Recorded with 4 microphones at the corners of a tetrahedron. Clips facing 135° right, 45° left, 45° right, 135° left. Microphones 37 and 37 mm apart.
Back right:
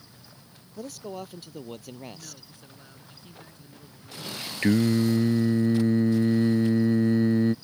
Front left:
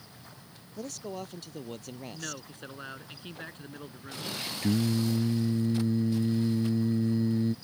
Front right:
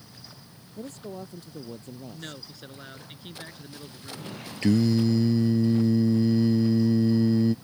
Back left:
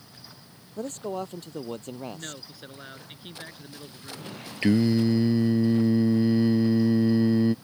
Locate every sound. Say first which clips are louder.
0.8 s a man speaking: back right 1 dB, back left 6 dB; 145° left
2.1 s a man speaking: front left 6 dB, back left 1 dB; 55° left
4.6 s singing: back right 6 dB, back left 1 dB; 165° right